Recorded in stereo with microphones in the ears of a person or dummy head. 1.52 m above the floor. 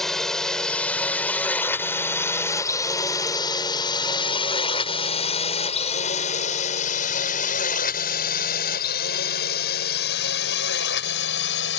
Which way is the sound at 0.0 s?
Centre (ahead or behind).